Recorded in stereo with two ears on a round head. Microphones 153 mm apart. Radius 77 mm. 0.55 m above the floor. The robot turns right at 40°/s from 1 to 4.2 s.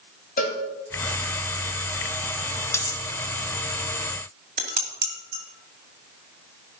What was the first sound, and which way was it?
A cowbell, 50° left (ahead or behind).